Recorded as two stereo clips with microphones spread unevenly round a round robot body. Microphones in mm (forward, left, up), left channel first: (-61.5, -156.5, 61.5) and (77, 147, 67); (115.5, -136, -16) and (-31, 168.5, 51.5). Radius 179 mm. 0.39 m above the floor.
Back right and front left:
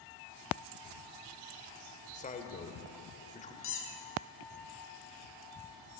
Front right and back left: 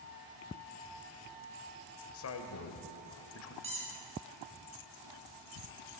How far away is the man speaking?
About 1.4 m.